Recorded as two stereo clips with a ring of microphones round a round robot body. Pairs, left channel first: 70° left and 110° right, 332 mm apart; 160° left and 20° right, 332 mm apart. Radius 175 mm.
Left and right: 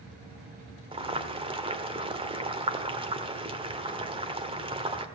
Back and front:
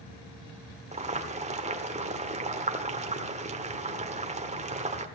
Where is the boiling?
60° right, 1.2 m.